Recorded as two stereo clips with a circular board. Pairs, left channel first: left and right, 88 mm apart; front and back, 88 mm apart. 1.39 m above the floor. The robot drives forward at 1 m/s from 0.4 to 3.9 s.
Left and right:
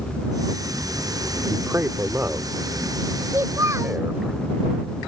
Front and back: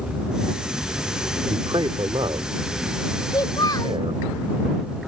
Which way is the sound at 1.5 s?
150° right.